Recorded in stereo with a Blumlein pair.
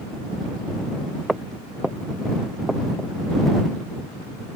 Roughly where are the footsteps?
Ahead.